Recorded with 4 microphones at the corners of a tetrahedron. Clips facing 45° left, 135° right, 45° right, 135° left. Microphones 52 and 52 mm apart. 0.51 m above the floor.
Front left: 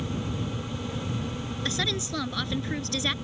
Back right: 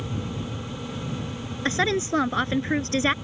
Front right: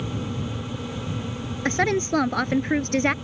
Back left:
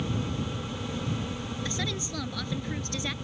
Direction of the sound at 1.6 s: 80° right.